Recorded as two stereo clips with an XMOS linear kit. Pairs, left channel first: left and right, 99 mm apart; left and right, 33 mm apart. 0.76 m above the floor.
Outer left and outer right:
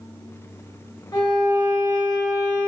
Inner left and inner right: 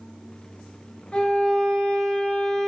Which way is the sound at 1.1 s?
40° left (ahead or behind).